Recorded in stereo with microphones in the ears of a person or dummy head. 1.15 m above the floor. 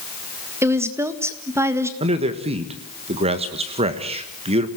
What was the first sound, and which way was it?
A woman speaking, 15° right (ahead or behind).